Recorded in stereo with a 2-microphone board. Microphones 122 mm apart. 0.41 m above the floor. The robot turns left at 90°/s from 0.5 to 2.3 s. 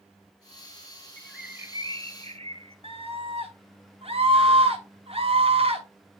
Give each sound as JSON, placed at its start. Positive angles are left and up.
{"t": 1.2, "sound": "a bird", "azimuth_deg": 10, "distance_m": 0.8}
{"t": 2.8, "sound": "a scream", "side_deg": -55, "distance_m": 2.0}